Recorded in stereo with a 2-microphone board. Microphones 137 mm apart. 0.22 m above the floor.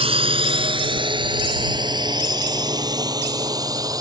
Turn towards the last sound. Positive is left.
turn(degrees=-25)  # may be behind; listen again after turning